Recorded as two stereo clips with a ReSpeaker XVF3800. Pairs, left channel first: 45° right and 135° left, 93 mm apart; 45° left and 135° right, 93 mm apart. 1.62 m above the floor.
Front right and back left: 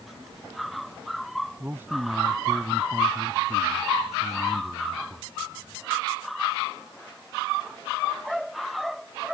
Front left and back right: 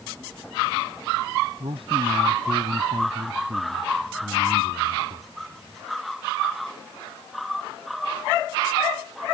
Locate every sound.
1.6 s a man speaking: 160° right